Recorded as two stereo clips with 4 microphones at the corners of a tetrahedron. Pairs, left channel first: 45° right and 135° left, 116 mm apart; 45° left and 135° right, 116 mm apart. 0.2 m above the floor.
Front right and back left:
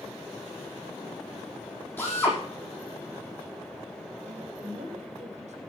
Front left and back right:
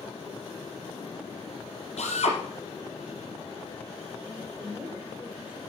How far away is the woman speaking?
About 5.5 m.